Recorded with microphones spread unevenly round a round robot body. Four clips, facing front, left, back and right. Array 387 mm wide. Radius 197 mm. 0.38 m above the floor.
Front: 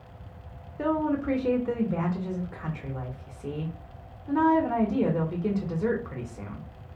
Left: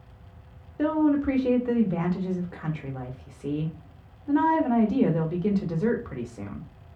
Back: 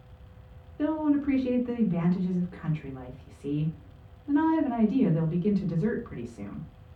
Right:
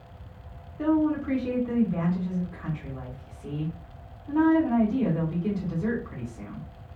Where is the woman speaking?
45° left, 1.2 m.